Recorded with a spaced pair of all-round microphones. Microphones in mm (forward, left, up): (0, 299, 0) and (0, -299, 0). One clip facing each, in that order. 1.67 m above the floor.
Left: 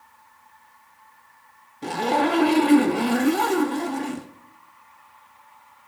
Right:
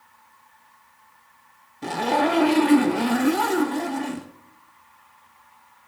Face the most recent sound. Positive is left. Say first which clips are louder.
# even
turn(degrees=-5)  # may be behind; listen again after turning